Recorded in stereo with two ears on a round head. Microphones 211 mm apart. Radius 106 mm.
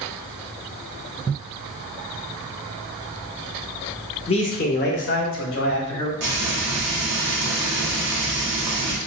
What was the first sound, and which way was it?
A man speaking, 25° left (ahead or behind).